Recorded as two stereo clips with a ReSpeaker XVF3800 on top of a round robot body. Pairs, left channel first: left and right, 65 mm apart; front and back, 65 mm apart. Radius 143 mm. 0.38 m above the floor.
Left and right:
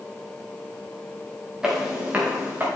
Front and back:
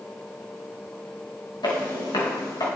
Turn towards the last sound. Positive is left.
turn(degrees=-30)